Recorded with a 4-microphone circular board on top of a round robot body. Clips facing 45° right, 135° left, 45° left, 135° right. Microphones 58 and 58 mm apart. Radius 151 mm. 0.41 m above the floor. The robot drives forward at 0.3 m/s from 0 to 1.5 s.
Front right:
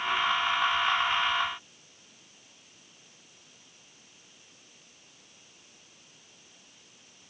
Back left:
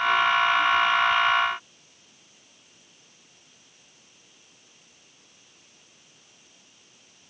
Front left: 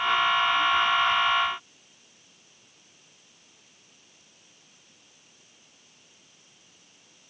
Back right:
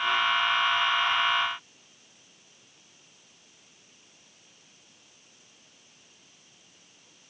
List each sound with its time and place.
Only background noise.